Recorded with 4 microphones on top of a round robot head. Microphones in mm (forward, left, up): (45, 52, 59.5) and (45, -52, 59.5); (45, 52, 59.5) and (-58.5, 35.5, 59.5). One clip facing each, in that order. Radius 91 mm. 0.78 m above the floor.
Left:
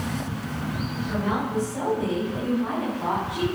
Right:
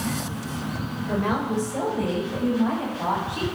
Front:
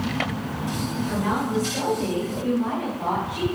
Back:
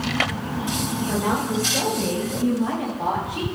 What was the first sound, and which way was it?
A woman speaking, 100° right.